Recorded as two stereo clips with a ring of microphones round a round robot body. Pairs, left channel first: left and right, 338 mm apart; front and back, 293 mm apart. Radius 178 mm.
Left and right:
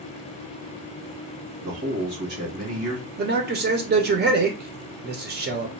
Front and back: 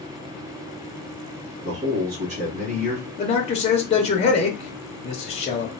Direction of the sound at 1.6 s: 115° right.